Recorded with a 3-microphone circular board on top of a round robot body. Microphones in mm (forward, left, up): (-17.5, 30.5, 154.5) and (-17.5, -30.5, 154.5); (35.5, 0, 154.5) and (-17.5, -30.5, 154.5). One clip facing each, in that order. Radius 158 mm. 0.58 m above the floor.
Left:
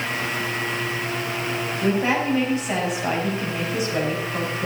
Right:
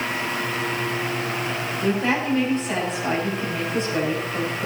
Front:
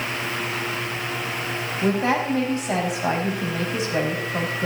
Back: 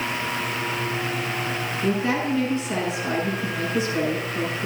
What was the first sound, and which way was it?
A woman speaking, 5° left.